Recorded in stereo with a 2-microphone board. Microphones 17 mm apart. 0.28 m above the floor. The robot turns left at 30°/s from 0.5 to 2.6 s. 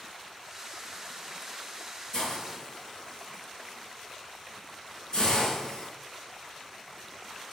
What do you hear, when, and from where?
2.1 s a hiss: 30° left (ahead or behind), 4 m; by 5.9 s 45° left (ahead or behind), 4 m